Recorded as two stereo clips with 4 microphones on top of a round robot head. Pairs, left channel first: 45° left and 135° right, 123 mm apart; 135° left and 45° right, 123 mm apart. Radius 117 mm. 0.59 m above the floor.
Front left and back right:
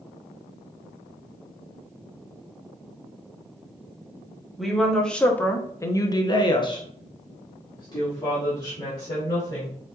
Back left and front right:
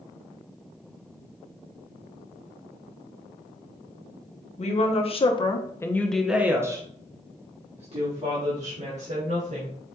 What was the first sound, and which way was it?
A woman speaking, 135° left.